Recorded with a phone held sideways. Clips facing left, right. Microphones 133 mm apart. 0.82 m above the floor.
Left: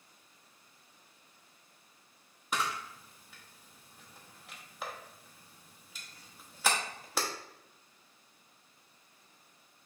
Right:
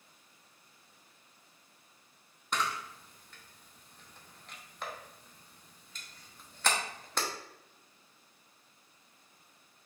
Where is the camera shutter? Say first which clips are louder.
Right 1 dB; 5° left (ahead or behind), 0.9 m.